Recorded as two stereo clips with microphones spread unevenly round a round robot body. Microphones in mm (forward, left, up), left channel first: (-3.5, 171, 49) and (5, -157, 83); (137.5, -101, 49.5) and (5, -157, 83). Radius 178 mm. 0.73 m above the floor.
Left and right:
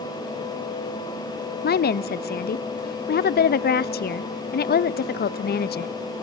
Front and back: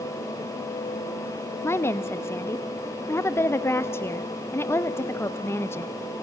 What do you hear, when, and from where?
1.6 s a woman speaking: 60° left, 0.5 m